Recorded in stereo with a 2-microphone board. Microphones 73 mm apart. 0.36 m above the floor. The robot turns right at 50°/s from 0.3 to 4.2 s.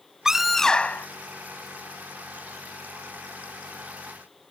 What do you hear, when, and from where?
0.2 s a scream: 10° right; by 1.1 s 30° left